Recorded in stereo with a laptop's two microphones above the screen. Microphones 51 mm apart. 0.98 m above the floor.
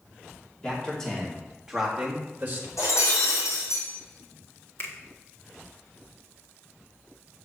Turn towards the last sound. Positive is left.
turn(degrees=55)  # may be behind; listen again after turning